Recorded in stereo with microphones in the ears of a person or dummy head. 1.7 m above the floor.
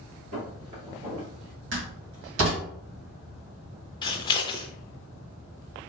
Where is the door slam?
70° right (ahead or behind), 2 m.